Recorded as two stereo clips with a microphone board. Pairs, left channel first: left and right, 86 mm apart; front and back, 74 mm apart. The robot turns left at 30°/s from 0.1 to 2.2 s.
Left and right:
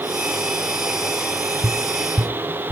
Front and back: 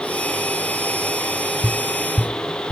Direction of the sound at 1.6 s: 105° right.